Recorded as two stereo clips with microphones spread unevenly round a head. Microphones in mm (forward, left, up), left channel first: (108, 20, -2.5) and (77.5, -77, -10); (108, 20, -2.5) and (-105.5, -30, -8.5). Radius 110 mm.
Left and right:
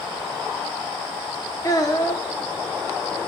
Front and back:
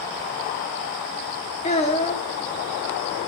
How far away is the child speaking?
About 0.8 m.